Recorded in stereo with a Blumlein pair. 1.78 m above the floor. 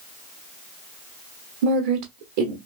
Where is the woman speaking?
50° right, 0.9 m.